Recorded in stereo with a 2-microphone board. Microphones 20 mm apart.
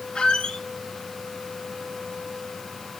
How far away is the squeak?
About 1.7 m.